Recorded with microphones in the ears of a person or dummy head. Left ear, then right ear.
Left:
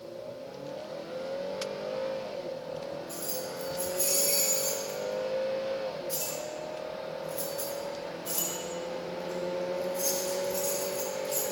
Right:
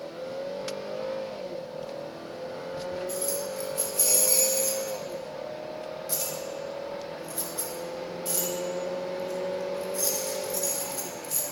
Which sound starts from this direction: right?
Keys jangling, at 3.1 s.